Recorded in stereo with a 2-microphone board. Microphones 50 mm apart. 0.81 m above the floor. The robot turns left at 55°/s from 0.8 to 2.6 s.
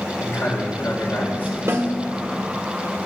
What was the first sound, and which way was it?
A man speaking, 75° left.